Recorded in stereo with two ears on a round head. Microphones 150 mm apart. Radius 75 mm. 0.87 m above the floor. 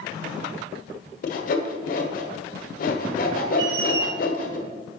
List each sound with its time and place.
1.2 s sawing: 55° left (ahead or behind), 1.5 m
3.6 s a squeak: 65° right (ahead or behind), 1.5 m